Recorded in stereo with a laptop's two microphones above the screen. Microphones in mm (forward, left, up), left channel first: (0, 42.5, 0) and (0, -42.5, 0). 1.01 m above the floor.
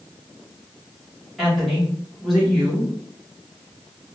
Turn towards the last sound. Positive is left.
turn(degrees=0)  # may be behind; listen again after turning